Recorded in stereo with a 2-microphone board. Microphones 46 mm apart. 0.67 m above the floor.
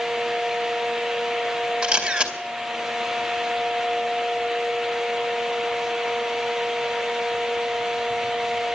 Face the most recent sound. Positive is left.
turn(degrees=-20)  # may be behind; listen again after turning